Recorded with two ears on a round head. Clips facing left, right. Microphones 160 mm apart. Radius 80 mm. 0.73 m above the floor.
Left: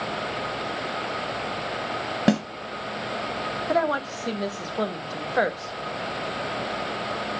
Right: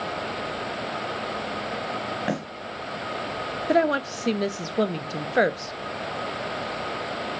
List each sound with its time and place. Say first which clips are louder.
2.3 s a snare drum: left 8 dB; 50° left (ahead or behind), 1.7 m
3.7 s a woman speaking: right 3 dB; 25° right (ahead or behind), 0.5 m